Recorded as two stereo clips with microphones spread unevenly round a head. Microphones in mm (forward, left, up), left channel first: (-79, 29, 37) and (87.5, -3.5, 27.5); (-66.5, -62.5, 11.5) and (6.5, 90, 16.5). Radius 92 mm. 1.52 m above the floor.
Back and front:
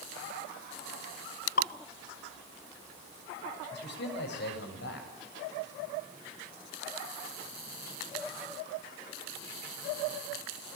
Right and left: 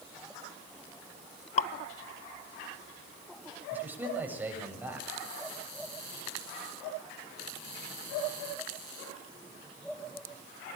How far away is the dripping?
About 0.9 m.